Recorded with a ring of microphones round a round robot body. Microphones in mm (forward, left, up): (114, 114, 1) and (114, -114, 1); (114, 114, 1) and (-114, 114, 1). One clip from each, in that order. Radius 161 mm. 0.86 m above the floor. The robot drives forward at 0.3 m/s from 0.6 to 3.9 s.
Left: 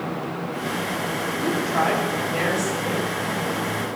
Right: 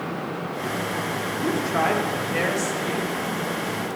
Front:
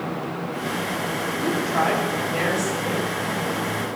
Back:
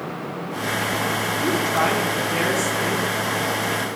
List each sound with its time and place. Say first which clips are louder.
1.4 s a woman speaking: left 1 dB, back 1 dB; 175° right, 2 m